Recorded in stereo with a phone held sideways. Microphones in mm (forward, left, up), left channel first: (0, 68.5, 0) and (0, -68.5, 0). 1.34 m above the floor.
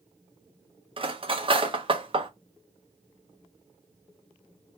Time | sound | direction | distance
1.0 | cutlery clinking | 40° right (ahead or behind) | 0.6 m